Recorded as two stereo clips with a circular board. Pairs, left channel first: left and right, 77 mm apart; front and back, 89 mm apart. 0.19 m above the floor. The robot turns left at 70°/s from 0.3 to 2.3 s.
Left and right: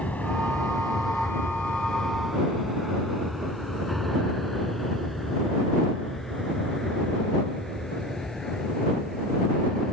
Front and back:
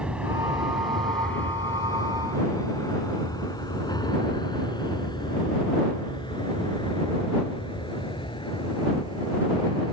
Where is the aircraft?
125° left; by 9.9 s 5° left.